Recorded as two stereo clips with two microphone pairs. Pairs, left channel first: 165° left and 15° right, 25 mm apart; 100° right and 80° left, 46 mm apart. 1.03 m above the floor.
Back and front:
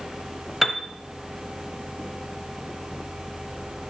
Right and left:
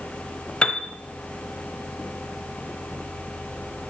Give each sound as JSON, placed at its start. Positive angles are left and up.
{"t": 0.6, "sound": "a piano", "azimuth_deg": -105, "distance_m": 0.9}